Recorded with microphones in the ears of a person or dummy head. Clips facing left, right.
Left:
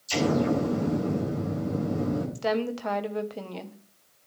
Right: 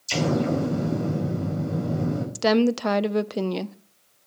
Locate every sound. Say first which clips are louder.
0.1 s an explosion: right 1 dB; 45° right (ahead or behind), 6 m
2.4 s a woman speaking: right 8 dB; 65° right (ahead or behind), 0.7 m